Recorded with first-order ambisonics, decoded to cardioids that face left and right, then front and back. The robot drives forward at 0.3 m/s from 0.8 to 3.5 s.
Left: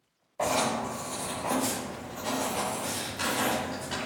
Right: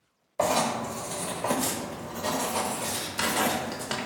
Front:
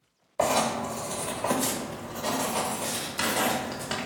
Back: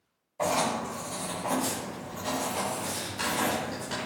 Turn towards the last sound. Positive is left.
turn(degrees=-65)